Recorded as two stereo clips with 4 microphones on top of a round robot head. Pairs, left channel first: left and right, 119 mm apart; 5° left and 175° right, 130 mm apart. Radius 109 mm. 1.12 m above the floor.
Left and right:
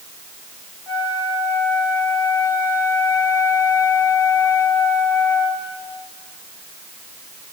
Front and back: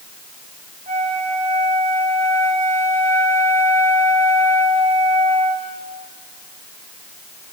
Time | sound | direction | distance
0.9 | a flute | 170° left | 3 m